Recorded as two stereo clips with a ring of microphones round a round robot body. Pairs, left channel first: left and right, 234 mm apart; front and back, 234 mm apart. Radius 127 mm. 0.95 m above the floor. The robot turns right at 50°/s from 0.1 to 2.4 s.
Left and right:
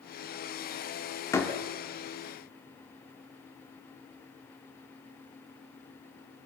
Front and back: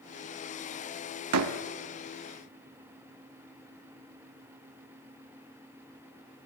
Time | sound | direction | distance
1.3 | a door slam | 170° left | 1.4 m